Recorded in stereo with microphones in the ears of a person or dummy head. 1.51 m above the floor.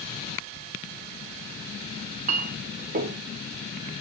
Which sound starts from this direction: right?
A clink, at 2.0 s.